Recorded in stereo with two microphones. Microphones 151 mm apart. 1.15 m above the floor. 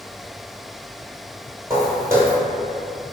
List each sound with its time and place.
1.7 s footsteps: 15° right (ahead or behind), 1.2 m